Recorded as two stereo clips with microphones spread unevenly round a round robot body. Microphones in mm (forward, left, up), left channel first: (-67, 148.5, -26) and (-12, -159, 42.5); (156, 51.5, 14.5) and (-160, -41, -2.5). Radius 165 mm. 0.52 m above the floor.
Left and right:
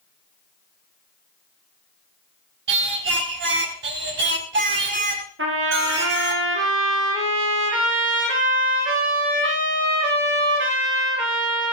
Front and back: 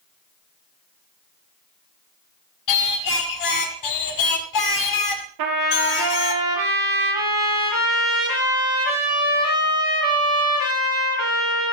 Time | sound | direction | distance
2.7 | singing | 20° right | 1.7 m
5.4 | a trumpet | 135° right | 7 m